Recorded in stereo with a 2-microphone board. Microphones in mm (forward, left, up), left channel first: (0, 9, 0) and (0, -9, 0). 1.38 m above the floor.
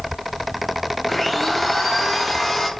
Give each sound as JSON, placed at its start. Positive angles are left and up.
{"t": 1.1, "sound": "a blender", "side_deg": 10, "distance_m": 5.0}